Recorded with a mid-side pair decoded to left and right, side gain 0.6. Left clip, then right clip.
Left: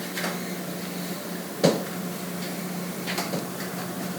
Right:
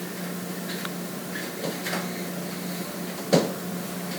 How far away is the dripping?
No dripping in this recording.